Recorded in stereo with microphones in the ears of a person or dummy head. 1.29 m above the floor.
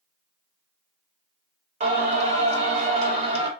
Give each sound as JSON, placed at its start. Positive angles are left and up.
{"t": 1.8, "sound": "singing", "side_deg": -40, "distance_m": 1.1}